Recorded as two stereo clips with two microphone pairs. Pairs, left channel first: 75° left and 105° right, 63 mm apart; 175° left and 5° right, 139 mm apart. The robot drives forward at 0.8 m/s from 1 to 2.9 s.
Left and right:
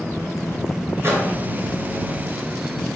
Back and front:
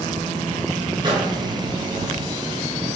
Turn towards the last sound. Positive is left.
turn(degrees=-100)